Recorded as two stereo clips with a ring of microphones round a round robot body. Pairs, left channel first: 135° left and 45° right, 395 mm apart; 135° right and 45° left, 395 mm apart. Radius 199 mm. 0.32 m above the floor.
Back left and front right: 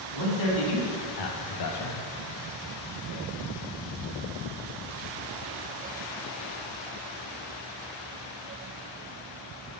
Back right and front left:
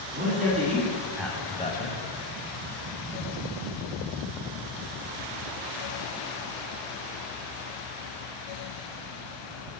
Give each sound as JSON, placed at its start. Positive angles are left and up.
{"t": 0.1, "sound": "a man speaking", "azimuth_deg": 110, "distance_m": 3.0}